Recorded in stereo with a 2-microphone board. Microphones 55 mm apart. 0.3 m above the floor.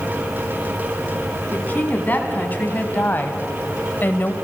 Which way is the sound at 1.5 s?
30° left (ahead or behind).